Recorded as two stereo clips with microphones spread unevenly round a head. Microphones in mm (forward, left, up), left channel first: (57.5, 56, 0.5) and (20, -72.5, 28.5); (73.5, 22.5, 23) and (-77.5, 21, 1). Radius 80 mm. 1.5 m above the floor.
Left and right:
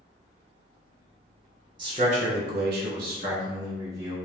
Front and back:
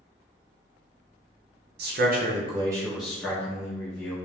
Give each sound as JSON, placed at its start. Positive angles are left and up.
{"t": 1.8, "sound": "a man speaking", "azimuth_deg": -170, "distance_m": 0.7}